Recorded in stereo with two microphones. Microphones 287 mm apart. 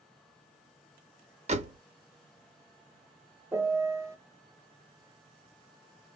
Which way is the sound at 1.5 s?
25° right (ahead or behind).